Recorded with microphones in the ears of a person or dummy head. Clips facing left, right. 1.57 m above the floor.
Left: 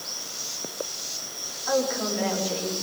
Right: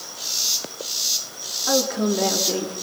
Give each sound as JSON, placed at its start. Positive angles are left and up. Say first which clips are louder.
{"t": 1.7, "sound": "a woman speaking", "louder": "right 4 dB", "side_deg": -55, "distance_m": 4.5}